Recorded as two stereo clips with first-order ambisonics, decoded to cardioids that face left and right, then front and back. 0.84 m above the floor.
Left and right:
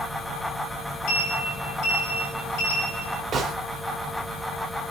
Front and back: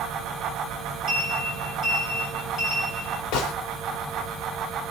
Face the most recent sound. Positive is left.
turn(degrees=-25)